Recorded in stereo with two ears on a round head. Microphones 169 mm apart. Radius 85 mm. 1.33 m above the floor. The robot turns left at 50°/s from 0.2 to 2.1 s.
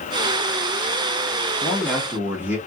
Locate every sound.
1.6 s a man speaking: 15° left (ahead or behind), 1.0 m; by 2.6 s 10° right (ahead or behind), 1.0 m